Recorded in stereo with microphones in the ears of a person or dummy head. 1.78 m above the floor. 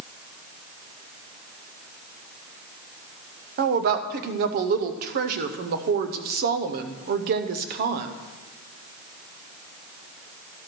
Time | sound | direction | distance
3.6 | a woman speaking | 50° right (ahead or behind) | 0.6 m